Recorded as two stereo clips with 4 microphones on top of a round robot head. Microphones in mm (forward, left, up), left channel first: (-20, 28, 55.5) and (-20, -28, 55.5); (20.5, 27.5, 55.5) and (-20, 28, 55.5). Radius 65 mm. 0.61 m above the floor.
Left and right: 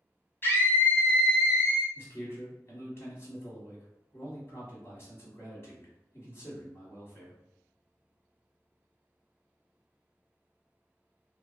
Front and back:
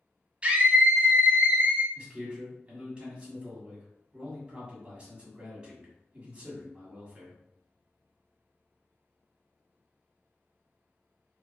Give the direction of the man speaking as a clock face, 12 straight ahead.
8 o'clock.